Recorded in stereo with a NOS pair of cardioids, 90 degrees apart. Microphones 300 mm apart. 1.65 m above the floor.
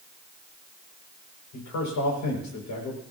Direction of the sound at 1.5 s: 70° left.